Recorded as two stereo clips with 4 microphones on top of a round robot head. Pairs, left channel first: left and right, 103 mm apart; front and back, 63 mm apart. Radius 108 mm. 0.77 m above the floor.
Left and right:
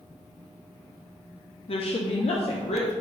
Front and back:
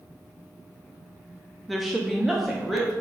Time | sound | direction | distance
1.7 | a woman speaking | 90° left | 0.9 m